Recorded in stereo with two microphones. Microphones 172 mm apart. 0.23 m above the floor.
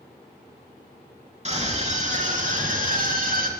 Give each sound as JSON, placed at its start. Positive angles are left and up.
{"t": 1.4, "sound": "a scream", "side_deg": -40, "distance_m": 3.5}